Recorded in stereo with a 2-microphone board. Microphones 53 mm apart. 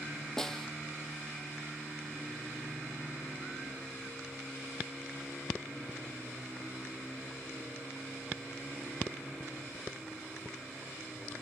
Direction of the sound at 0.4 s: 10° left (ahead or behind).